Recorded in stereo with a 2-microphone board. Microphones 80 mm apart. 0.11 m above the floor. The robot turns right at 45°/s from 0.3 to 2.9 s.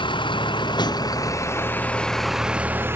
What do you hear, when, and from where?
0.0 s a vehicle: 90° left; by 3.0 s 150° right